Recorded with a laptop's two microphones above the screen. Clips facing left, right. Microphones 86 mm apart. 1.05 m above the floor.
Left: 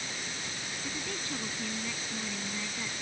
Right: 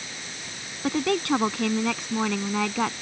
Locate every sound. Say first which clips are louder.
0.8 s a woman speaking: right 17 dB; 70° right (ahead or behind)